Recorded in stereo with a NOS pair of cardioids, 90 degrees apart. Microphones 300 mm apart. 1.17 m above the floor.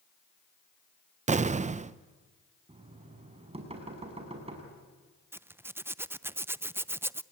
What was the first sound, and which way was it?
An explosion, 25° right.